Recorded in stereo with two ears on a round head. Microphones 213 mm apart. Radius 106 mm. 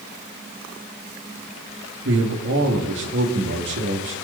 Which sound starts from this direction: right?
A man speaking, at 2.0 s.